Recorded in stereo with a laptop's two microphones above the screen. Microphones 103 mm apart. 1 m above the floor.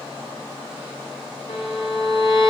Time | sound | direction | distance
1.5 | a violin | 65° left (ahead or behind) | 1.6 m